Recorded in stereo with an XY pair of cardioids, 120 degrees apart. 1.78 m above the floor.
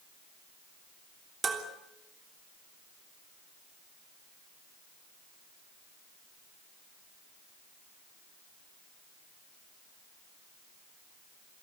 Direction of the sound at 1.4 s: 35° right.